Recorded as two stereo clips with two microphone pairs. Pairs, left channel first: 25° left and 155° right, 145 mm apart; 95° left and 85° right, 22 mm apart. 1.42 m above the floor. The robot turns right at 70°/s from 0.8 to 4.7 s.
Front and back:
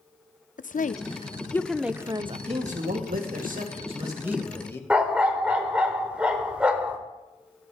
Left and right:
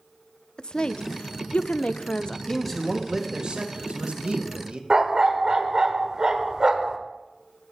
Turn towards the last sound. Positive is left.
turn(degrees=-75)